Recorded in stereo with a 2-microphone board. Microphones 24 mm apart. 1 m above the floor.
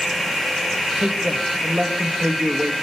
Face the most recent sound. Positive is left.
turn(degrees=-75)  # may be behind; listen again after turning